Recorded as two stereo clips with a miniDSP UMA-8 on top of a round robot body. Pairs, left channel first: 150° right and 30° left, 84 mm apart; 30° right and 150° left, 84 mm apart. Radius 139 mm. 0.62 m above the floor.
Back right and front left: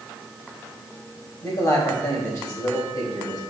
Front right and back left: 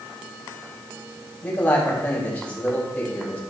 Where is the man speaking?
105° right, 3 m.